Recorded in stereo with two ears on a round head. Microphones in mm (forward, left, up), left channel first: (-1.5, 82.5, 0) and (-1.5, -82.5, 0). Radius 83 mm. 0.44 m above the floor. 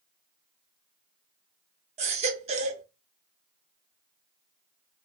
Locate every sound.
2.0 s a baby crying: 35° right (ahead or behind), 0.6 m